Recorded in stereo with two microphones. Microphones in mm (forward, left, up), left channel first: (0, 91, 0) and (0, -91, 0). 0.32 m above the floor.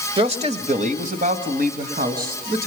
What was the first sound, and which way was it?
A man speaking, 30° right (ahead or behind).